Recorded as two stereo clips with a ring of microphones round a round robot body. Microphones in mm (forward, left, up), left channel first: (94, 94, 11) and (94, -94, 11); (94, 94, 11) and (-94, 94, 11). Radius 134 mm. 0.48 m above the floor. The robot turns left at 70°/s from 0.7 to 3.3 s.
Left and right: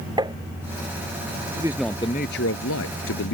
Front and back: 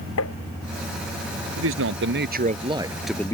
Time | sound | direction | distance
0.2 | tapping | 20° right | ?
1.6 | a man speaking | 165° right | ?